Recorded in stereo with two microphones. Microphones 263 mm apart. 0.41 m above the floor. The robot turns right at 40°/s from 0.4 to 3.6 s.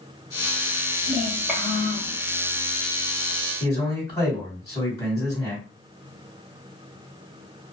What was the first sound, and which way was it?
A child speaking, 15° right.